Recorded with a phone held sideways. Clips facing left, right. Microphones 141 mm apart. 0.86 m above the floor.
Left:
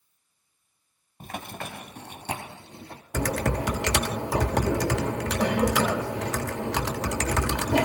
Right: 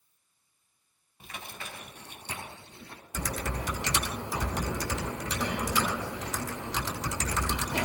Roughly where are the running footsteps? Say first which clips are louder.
Left 8 dB; left.